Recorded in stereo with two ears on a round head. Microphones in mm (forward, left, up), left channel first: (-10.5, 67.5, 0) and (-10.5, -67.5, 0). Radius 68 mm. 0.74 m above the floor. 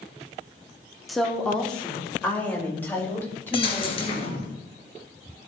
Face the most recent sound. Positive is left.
turn(degrees=35)  # may be behind; listen again after turning